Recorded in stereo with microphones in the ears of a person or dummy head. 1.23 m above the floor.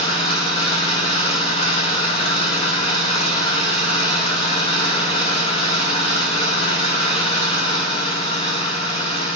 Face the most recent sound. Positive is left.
turn(degrees=25)  # may be behind; listen again after turning